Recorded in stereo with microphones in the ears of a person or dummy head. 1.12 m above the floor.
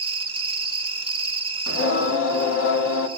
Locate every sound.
0.0 s an insect: 25° right (ahead or behind), 0.7 m
1.7 s singing: 75° left (ahead or behind), 1.4 m